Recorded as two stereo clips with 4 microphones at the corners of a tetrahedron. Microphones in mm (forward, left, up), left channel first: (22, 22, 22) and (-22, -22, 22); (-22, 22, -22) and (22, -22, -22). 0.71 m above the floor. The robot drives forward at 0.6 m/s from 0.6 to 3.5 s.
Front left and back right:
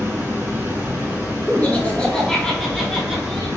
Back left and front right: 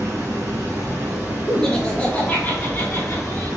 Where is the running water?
80° right, 1.7 m; by 3.6 s 135° right, 2 m.